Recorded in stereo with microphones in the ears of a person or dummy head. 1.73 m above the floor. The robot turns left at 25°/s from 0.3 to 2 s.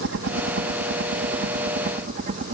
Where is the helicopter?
65° right (ahead or behind); by 2.5 s 45° right (ahead or behind).